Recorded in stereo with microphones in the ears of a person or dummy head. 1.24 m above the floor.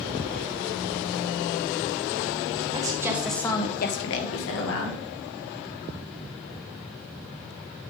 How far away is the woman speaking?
About 1.7 m.